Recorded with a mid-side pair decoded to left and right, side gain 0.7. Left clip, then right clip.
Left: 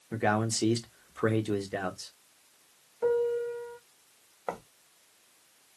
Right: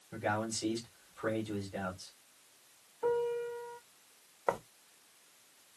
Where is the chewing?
No chewing in this recording.